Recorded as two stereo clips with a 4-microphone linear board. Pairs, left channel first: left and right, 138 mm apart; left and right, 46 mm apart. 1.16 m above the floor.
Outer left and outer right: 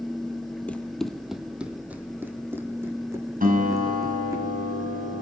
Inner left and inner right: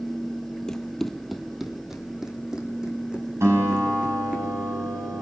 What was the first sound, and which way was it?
Running footsteps, 10° left (ahead or behind).